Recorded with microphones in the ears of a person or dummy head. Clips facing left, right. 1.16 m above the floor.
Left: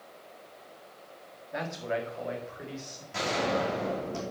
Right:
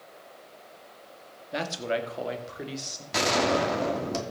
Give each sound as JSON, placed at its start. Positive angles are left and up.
{"t": 1.5, "sound": "a man speaking", "side_deg": -45, "distance_m": 2.0}
{"t": 3.1, "sound": "a gunshot", "side_deg": -85, "distance_m": 2.5}